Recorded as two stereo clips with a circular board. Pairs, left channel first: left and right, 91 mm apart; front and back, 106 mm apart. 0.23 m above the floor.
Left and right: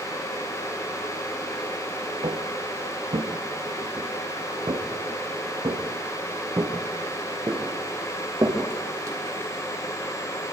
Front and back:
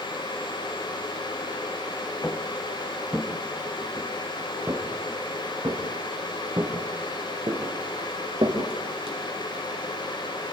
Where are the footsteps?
75° right, 2.0 m; by 9.2 s 150° right, 4 m.